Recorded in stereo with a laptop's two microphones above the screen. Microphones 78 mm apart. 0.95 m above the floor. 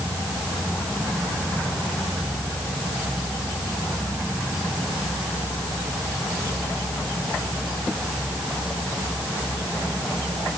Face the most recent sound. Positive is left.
No sound to turn to.